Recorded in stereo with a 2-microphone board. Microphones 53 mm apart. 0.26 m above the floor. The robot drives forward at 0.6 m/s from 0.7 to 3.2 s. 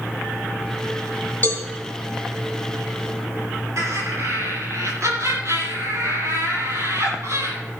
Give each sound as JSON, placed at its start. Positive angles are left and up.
{"t": 1.4, "sound": "a cowbell", "side_deg": 30, "distance_m": 2.5}
{"t": 3.8, "sound": "laughter", "side_deg": -65, "distance_m": 8.0}